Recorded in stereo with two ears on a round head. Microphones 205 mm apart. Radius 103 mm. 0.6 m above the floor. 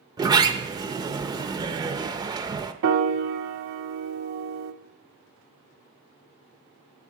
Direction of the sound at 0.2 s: 15° right (ahead or behind).